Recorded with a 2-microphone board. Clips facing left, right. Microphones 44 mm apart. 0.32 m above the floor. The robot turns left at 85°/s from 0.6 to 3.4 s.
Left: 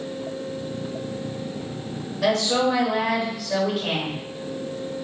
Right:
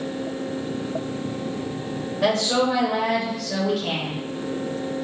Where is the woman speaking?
25° right (ahead or behind), 0.9 m; by 4.2 s 15° left (ahead or behind), 0.9 m.